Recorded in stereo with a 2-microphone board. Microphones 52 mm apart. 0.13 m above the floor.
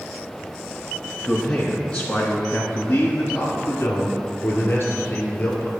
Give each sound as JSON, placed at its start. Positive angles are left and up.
{"t": 1.2, "sound": "a man speaking", "side_deg": 5, "distance_m": 1.3}